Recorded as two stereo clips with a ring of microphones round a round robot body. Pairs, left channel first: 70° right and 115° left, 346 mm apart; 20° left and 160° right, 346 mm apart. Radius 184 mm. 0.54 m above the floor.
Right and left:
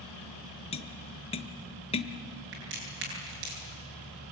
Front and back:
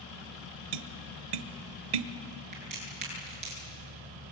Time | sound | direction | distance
0.7 | tapping | 140° right | 1.1 m
2.5 | a crack | 130° left | 9 m